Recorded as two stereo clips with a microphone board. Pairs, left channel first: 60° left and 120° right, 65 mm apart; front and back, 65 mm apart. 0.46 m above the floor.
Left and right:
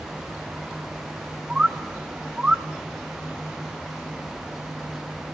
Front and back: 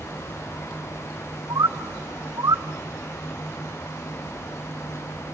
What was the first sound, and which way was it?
A bird, 165° left.